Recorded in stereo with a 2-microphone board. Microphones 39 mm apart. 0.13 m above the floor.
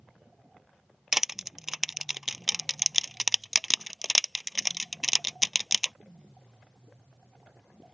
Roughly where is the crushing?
Centre.